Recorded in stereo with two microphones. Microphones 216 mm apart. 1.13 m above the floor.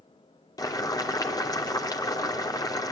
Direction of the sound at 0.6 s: 15° left (ahead or behind).